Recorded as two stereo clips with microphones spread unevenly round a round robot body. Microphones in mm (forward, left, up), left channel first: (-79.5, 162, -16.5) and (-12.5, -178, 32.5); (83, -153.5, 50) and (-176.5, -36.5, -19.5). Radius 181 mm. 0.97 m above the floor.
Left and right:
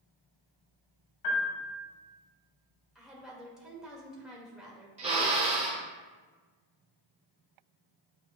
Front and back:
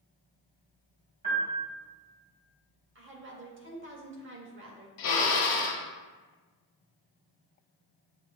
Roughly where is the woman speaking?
Behind.